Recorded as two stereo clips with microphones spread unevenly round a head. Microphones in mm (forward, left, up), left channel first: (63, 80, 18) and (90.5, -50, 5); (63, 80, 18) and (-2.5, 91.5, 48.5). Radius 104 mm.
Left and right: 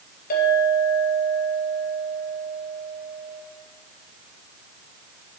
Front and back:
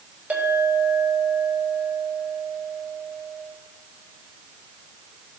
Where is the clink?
110° left, 3.5 m.